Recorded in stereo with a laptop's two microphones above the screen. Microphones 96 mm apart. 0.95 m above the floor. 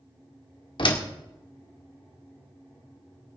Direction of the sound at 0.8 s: 60° left (ahead or behind).